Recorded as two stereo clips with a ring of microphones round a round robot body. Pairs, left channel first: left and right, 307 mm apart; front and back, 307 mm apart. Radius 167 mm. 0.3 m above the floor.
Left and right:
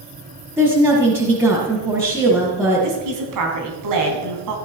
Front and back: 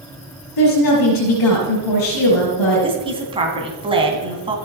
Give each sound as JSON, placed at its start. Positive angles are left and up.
{"t": 0.6, "sound": "a woman speaking", "azimuth_deg": -5, "distance_m": 5.0}
{"t": 2.8, "sound": "a woman speaking", "azimuth_deg": -110, "distance_m": 3.5}